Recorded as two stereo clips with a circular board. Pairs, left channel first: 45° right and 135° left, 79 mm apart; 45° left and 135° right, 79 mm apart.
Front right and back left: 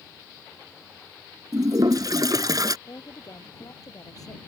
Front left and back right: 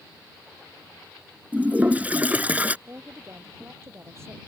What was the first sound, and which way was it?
A toilet flushing, 160° left.